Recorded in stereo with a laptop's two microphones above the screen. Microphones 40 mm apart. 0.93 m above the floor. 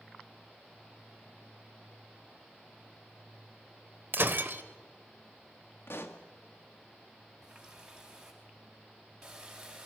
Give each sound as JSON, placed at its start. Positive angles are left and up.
{"t": 4.1, "sound": "breaking glass", "side_deg": -60, "distance_m": 1.1}
{"t": 5.9, "sound": "a pop", "side_deg": 75, "distance_m": 1.3}
{"t": 7.4, "sound": "a running tap", "side_deg": -10, "distance_m": 4.5}